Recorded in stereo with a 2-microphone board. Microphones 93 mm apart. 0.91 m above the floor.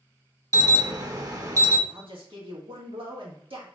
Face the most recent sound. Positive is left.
turn(degrees=-70)  # may be behind; listen again after turning